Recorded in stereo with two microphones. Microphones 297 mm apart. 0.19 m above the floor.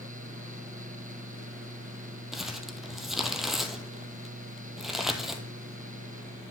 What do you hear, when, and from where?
2.3 s crumpling: centre (ahead or behind), 0.9 m